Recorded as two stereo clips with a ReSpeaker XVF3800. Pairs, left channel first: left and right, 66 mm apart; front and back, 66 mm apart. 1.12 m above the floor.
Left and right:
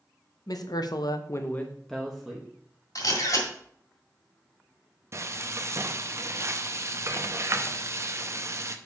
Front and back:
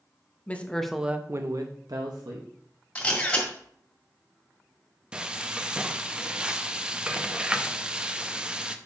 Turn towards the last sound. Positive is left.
turn(degrees=-105)